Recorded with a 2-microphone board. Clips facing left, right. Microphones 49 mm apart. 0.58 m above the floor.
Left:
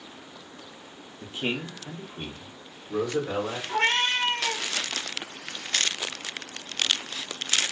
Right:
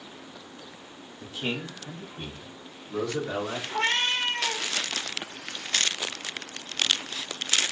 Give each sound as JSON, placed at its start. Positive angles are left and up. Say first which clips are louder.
{"t": 1.2, "sound": "a man speaking", "louder": "left 2 dB", "side_deg": 25, "distance_m": 0.6}
{"t": 3.7, "sound": "a cat meowing", "louder": "left 2 dB", "side_deg": 40, "distance_m": 1.3}